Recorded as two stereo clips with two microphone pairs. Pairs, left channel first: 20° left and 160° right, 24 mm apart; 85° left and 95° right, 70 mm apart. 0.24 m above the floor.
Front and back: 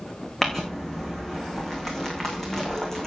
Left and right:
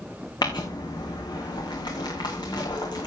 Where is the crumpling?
90° left, 3.5 m.